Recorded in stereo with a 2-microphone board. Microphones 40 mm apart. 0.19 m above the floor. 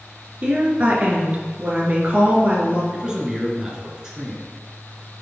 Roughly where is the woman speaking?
Right.